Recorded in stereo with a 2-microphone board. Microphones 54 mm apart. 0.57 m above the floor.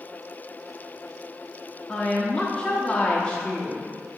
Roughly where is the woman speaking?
Left.